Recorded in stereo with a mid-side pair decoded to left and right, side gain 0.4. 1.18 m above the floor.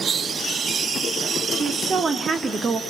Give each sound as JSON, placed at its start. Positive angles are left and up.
{"t": 1.5, "sound": "a woman speaking", "azimuth_deg": -55, "distance_m": 2.5}